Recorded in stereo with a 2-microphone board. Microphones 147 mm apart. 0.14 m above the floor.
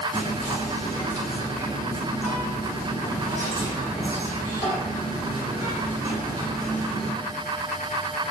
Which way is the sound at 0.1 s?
20° right (ahead or behind).